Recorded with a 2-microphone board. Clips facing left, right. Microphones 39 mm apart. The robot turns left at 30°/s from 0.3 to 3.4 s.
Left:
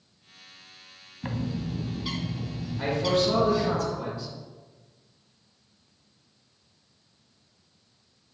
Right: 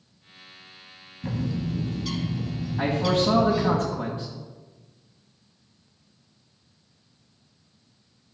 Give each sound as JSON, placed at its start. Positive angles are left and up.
{"t": 1.2, "sound": "a bird", "azimuth_deg": 50, "distance_m": 1.5}
{"t": 2.8, "sound": "a man speaking", "side_deg": -50, "distance_m": 2.5}